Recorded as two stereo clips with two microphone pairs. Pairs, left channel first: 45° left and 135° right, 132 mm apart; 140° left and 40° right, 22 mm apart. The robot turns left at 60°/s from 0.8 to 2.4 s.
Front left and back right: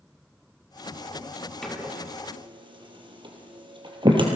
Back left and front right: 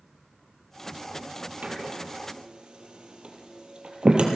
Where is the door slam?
35° right, 2.5 m; by 4.3 s 85° right, 2.5 m.